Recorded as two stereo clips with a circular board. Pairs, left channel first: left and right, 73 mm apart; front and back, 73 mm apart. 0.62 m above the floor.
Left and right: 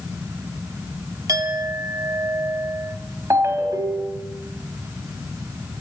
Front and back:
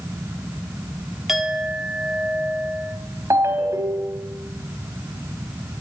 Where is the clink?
95° right, 1.0 m.